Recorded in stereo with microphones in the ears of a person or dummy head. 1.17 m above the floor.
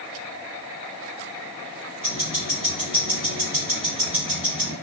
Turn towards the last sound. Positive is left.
turn(degrees=30)  # may be behind; listen again after turning